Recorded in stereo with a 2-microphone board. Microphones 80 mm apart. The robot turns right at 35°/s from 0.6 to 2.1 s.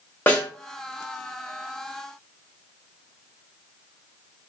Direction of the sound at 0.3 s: 25° left (ahead or behind).